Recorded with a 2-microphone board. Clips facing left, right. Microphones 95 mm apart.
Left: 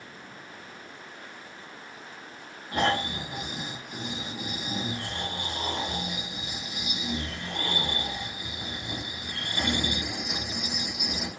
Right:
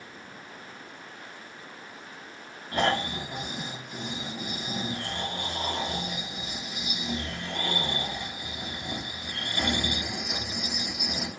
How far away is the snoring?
About 1.2 m.